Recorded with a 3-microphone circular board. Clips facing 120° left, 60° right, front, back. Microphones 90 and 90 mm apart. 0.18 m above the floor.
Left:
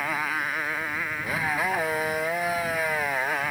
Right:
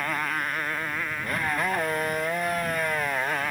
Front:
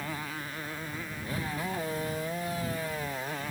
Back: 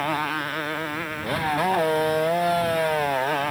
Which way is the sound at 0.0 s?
155° right.